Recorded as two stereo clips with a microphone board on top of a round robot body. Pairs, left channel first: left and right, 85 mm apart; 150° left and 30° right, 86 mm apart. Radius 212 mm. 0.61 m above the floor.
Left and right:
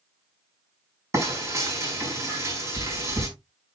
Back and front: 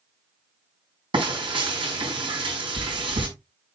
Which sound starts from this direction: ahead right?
Frying, at 1.1 s.